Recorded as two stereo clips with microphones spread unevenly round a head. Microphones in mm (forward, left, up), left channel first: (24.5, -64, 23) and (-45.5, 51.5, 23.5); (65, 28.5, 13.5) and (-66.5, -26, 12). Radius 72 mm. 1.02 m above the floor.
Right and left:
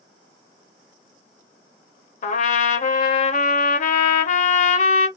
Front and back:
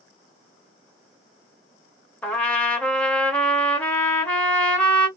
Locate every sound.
2.2 s a trumpet: 60° right, 0.7 m